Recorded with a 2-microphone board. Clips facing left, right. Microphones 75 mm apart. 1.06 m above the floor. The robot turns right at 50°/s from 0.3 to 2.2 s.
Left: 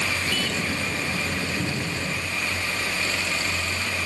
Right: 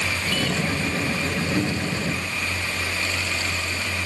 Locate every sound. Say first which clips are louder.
1.6 s a cupboard door: right 4 dB; 75° right (ahead or behind), 1.8 m; by 2.0 s 55° right (ahead or behind), 1.8 m